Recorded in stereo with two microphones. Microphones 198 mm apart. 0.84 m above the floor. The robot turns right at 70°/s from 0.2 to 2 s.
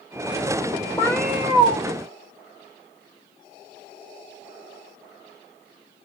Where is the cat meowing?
160° left, 1.5 m; by 1.8 s 140° right, 1.5 m.